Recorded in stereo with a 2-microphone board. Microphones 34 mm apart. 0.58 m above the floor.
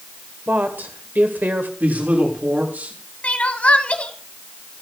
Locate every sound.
0.5 s a woman speaking: 65° right (ahead or behind), 1.9 m
1.8 s a man speaking: 55° right (ahead or behind), 6.5 m
3.2 s crying: 40° left (ahead or behind), 1.1 m